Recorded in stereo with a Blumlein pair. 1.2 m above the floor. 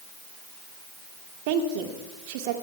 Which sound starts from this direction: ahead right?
A woman speaking, at 1.5 s.